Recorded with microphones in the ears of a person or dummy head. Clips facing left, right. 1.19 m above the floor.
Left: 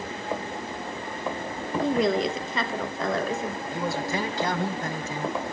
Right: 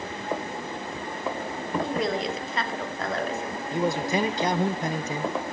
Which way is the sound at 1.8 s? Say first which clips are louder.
Left 6 dB; 60° left (ahead or behind).